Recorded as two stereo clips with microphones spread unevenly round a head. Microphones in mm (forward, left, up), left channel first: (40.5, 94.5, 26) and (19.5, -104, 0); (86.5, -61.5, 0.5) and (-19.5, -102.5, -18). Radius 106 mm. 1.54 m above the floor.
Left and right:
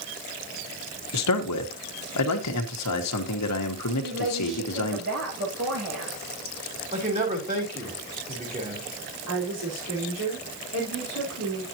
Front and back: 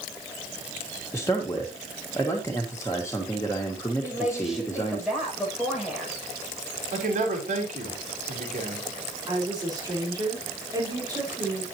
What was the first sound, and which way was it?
A man speaking, 100° left.